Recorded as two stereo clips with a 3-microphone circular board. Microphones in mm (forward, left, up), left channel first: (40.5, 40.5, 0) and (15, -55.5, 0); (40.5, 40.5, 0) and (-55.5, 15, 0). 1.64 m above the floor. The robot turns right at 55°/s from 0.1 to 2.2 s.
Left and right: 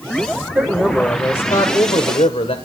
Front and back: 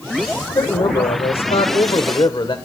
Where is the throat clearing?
No throat clearing in this recording.